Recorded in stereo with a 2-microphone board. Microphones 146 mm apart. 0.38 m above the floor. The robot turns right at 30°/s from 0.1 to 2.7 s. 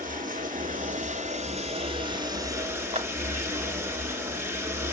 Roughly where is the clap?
Right.